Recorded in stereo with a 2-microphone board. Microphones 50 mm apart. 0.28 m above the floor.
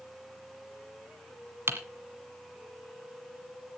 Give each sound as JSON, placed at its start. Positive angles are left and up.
{"t": 1.7, "sound": "typing on a keyboard", "side_deg": -55, "distance_m": 1.6}